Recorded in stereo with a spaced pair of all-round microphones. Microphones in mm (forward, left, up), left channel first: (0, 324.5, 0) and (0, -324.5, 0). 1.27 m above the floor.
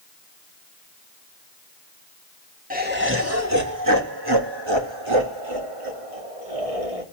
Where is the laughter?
10° right (ahead or behind), 2.5 m; by 7.0 s 60° right (ahead or behind), 3.5 m.